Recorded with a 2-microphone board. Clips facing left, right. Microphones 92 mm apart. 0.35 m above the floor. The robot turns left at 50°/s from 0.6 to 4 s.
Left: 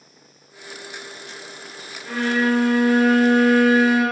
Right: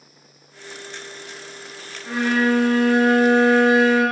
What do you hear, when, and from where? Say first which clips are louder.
2.0 s a violin: right 1 dB; 165° right, 0.8 m; by 4.0 s 100° left, 0.8 m